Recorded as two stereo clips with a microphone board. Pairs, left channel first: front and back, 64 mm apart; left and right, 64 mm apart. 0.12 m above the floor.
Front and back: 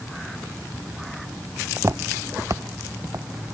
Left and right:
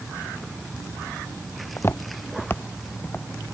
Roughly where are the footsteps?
Behind left.